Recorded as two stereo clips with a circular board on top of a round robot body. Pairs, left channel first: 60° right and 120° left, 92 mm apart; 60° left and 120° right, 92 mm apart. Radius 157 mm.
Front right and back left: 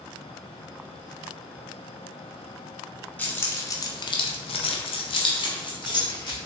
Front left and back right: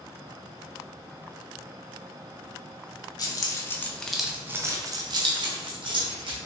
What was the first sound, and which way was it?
Keys jangling, 15° left.